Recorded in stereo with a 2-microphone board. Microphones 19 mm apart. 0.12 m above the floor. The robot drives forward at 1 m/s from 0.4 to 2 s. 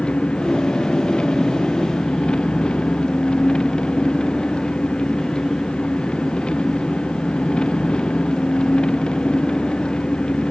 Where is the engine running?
55° left (ahead or behind); by 10.5 s 50° left (ahead or behind).